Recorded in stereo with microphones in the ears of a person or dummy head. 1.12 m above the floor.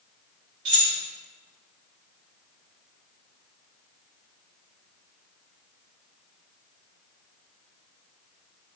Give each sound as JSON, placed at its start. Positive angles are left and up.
{"t": 0.7, "sound": "keys jangling", "side_deg": -55, "distance_m": 1.7}